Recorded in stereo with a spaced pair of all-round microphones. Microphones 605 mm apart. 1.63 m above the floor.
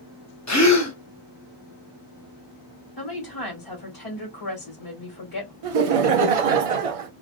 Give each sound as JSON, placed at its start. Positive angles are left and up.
{"t": 0.5, "sound": "a gasp", "side_deg": 30, "distance_m": 0.8}
{"t": 3.0, "sound": "a woman speaking", "side_deg": 35, "distance_m": 1.4}
{"t": 5.6, "sound": "laughter", "side_deg": -70, "distance_m": 0.6}